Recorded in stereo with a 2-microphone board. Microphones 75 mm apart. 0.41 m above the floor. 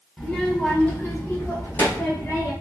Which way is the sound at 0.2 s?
5° left (ahead or behind).